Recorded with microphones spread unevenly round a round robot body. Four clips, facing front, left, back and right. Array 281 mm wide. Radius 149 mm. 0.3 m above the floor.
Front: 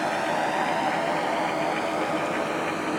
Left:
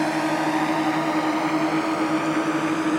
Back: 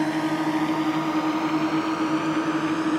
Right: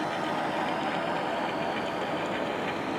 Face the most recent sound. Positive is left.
turn(degrees=130)